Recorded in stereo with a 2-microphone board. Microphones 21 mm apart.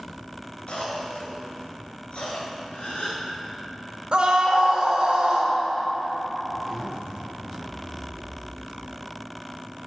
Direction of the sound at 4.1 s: 50° right (ahead or behind).